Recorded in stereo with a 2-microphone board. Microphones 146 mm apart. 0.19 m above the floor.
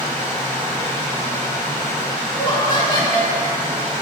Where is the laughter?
30° left (ahead or behind), 1.2 m.